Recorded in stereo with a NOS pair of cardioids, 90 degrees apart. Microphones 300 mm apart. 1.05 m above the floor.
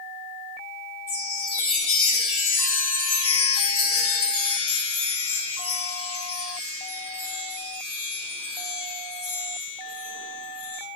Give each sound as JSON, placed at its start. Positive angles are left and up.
{"t": 1.1, "sound": "a chime", "azimuth_deg": 45, "distance_m": 1.1}